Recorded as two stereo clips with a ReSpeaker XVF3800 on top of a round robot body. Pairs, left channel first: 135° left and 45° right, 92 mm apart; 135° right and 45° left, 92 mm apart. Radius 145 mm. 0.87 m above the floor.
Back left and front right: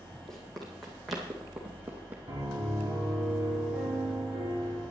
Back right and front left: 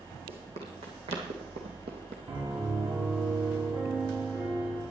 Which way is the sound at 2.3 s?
20° left.